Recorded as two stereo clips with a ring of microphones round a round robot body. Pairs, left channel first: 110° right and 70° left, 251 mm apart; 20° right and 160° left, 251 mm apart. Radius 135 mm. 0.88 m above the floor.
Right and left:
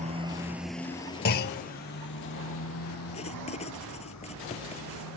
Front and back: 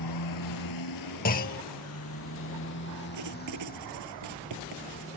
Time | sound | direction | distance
0.0 | a motorcycle | straight ahead | ?
1.2 | a clunk | 70° right | ?
3.1 | writing | straight behind | ?